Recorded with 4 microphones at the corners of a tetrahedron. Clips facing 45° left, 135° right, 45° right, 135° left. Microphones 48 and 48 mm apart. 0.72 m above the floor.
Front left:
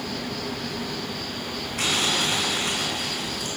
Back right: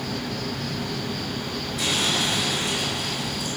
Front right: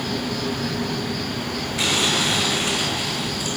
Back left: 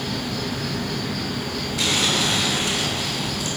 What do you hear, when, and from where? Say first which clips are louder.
0.0 s an insect: back right 1 dB, front right 2 dB; 140° right, 3 m
1.8 s crumpling: even, front right 1 dB; 10° left, 4.5 m